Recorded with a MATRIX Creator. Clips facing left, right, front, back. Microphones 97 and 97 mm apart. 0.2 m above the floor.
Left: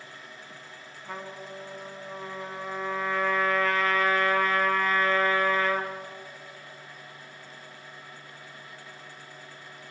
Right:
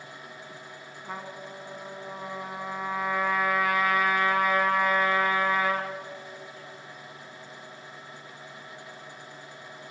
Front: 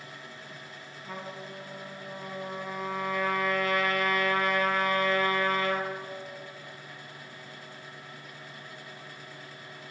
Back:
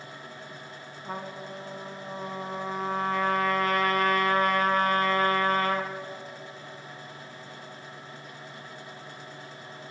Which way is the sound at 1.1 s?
165° right.